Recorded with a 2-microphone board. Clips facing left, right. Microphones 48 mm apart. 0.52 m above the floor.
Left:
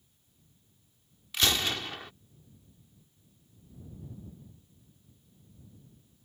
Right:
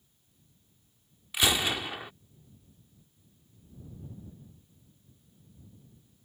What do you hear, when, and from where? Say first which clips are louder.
1.3 s a gunshot: right 1 dB; 15° right (ahead or behind)